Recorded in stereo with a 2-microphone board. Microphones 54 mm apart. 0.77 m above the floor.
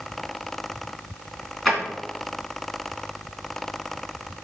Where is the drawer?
5° right (ahead or behind), 2.5 m.